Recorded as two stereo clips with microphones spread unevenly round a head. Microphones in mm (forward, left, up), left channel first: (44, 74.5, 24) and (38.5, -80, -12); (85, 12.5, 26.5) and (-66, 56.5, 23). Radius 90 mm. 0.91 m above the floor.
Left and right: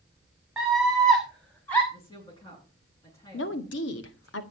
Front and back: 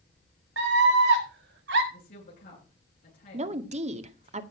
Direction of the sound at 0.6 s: Straight behind.